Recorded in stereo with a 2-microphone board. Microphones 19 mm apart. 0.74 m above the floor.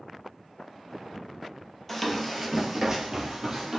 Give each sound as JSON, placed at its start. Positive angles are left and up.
{"t": 1.9, "sound": "running footsteps", "side_deg": 5, "distance_m": 0.9}